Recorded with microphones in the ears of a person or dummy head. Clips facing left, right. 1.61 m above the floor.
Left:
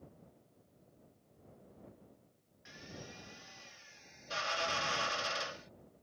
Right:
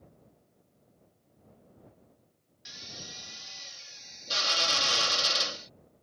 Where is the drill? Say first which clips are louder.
Even; 50° right (ahead or behind).